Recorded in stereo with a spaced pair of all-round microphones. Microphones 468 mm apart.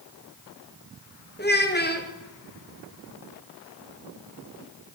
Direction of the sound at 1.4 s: 20° left (ahead or behind).